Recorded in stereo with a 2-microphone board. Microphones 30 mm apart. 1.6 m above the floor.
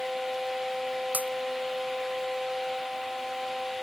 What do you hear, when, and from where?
1.1 s breaking glass: 70° right (ahead or behind)